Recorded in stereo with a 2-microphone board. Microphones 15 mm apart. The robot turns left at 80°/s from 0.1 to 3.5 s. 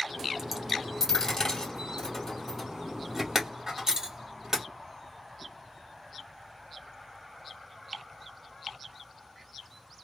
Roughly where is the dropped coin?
Centre.